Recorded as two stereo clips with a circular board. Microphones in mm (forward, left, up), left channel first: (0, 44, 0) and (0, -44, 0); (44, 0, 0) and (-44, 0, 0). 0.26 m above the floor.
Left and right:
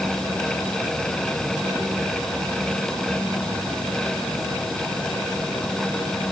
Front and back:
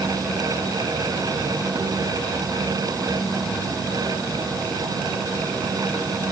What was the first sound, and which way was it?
Only background noise.